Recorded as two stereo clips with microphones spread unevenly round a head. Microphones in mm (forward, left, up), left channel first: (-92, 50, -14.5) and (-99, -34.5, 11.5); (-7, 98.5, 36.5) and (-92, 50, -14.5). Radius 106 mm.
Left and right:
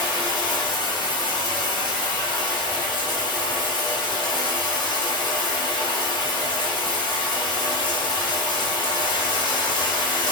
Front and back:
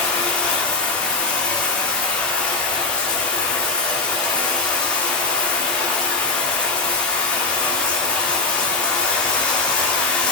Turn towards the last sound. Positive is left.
turn(degrees=60)